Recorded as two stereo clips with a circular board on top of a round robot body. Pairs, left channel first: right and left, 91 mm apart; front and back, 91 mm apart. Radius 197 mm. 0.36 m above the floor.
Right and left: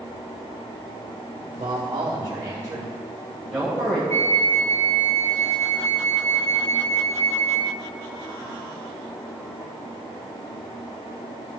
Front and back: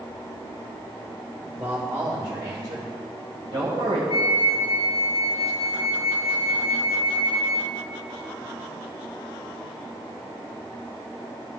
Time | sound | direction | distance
1.6 | a man speaking | 120° left | 2 m
4.1 | a flute | 25° right | 0.5 m